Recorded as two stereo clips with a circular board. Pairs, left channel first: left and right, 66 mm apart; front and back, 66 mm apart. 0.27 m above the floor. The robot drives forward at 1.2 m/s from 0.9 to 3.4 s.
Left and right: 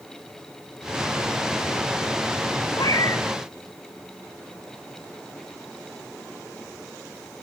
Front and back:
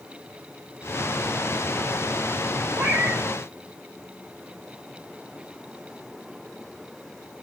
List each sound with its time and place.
2.8 s a cat meowing: 115° left, 2.5 m; by 3.2 s 125° left, 2.5 m